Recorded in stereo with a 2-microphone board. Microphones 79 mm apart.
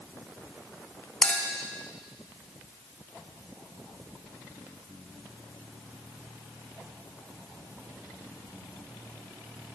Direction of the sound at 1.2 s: 15° left (ahead or behind).